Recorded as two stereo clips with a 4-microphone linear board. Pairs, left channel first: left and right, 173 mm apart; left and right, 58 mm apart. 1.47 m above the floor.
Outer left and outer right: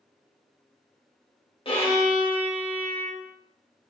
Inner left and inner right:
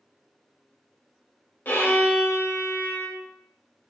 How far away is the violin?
About 1.1 m.